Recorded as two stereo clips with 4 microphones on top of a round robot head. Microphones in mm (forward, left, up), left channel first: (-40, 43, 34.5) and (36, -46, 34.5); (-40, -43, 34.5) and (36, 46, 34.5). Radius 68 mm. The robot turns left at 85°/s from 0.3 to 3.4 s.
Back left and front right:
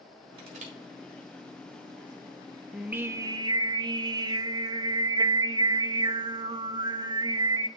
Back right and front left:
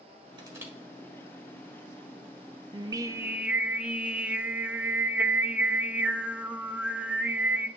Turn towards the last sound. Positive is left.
turn(degrees=-25)